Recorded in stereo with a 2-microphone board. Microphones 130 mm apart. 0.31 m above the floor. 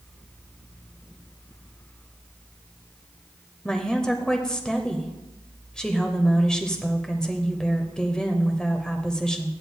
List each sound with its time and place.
3.6 s a woman speaking: 5° left (ahead or behind), 0.9 m